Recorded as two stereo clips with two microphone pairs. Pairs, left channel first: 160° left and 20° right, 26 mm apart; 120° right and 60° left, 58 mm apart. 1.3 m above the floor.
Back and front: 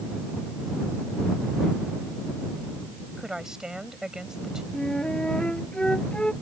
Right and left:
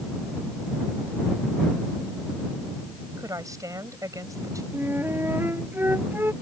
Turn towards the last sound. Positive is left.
turn(degrees=110)